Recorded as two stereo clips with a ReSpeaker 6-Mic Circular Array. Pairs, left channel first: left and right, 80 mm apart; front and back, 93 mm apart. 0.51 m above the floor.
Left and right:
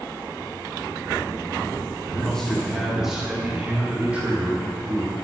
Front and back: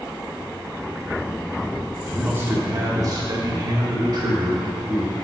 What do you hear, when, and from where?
2.1 s a man speaking: 145° left, 0.8 m; by 5.2 s 155° right, 1.9 m